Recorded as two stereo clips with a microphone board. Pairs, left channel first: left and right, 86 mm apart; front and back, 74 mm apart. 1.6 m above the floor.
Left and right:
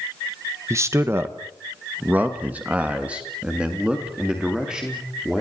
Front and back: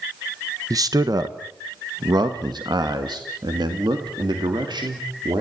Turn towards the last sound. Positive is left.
turn(degrees=-170)